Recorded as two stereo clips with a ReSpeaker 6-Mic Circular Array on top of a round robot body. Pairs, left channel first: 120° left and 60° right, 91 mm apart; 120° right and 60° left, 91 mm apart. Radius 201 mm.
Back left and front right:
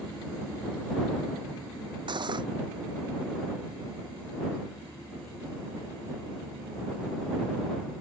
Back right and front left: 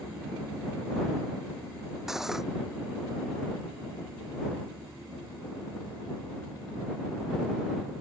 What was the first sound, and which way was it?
Cutlery clinking, 25° right.